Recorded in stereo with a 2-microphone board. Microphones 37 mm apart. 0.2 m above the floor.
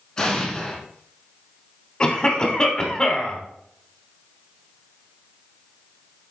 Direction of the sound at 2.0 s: 25° left (ahead or behind).